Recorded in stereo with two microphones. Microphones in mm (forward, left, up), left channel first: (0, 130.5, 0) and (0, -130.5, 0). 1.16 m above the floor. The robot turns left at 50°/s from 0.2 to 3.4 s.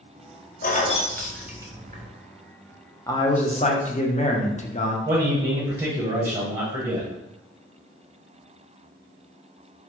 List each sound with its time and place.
0.6 s keys jangling: 35° left (ahead or behind), 0.5 m; by 2.1 s 40° right (ahead or behind), 0.5 m
3.1 s a man speaking: 15° left (ahead or behind), 0.6 m; by 5.0 s 30° left (ahead or behind), 0.6 m
5.0 s a man speaking: 25° right (ahead or behind), 0.9 m